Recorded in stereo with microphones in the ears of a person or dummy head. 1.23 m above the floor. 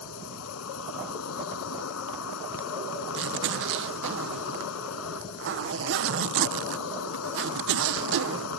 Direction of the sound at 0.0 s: 85° left.